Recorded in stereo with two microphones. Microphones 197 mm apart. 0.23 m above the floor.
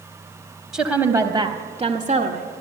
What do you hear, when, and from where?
0.7 s a woman speaking: centre (ahead or behind), 1.0 m; by 2.5 s 45° right (ahead or behind), 1.2 m